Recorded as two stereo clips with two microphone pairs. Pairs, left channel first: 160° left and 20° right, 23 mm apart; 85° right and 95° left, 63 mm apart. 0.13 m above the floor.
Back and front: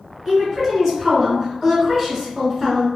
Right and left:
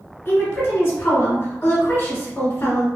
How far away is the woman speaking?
About 1.4 m.